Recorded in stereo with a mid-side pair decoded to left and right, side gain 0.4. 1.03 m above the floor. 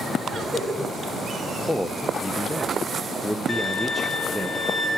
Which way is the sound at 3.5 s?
35° left.